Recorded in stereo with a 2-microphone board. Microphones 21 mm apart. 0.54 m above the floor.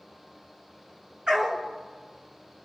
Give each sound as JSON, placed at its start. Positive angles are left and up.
{"t": 1.3, "sound": "a dog barking", "side_deg": -50, "distance_m": 3.0}